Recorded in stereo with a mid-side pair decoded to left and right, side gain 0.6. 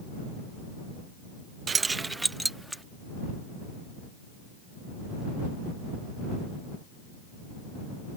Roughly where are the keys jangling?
Ahead right.